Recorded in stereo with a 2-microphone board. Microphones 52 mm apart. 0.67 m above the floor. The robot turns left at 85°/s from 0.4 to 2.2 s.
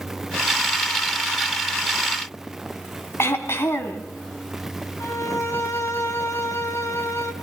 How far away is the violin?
About 3.5 m.